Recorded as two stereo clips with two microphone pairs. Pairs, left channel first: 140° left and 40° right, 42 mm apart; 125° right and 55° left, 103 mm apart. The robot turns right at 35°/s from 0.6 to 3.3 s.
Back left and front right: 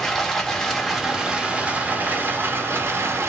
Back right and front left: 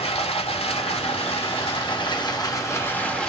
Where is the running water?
135° right, 2 m; by 3.3 s 45° right, 2 m.